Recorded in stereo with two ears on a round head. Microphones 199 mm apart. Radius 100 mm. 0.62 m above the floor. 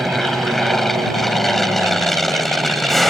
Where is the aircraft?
Centre (ahead or behind).